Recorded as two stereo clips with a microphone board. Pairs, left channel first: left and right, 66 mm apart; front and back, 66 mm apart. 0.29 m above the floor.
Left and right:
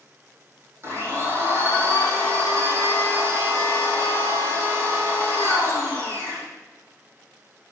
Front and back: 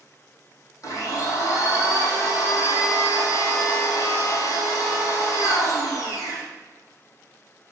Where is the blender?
40° right, 3 m.